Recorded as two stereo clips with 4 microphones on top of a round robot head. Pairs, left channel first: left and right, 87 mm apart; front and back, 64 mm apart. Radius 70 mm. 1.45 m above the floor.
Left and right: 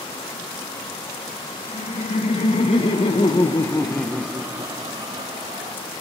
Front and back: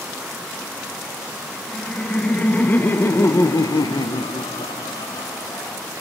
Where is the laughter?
75° left, 2.5 m; by 5.8 s 55° right, 2.0 m.